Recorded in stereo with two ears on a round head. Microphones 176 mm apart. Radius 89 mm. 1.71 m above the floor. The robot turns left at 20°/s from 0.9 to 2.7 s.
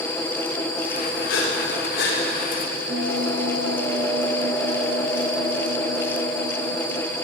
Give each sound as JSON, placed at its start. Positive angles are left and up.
{"t": 1.3, "sound": "breathing", "side_deg": 70, "distance_m": 6.0}
{"t": 2.9, "sound": "a bell", "side_deg": -60, "distance_m": 7.0}